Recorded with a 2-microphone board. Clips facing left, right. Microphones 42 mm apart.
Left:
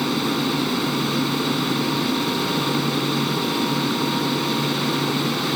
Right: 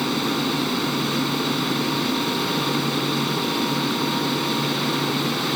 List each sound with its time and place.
0.0 s an aircraft: 5° left (ahead or behind)